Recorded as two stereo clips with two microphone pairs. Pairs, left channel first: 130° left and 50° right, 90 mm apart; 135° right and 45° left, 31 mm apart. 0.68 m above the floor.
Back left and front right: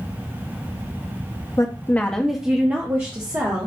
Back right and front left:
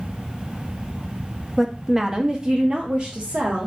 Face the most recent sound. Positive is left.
turn(degrees=0)